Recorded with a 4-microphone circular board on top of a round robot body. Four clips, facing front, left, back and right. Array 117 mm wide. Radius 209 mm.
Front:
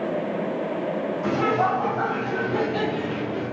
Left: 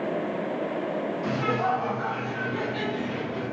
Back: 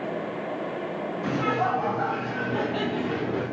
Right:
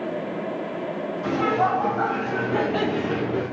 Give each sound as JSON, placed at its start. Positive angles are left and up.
{"t": 1.2, "sound": "laughter", "azimuth_deg": -35, "distance_m": 1.3}